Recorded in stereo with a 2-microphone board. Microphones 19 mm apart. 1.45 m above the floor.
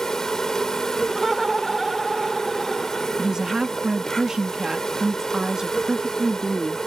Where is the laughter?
5° right (ahead or behind).